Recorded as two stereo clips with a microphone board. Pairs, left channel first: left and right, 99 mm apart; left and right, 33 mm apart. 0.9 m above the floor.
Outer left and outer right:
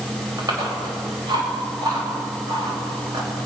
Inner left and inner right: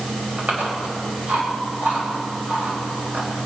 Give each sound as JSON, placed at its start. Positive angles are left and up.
{"t": 0.4, "sound": "chewing", "side_deg": -40, "distance_m": 4.5}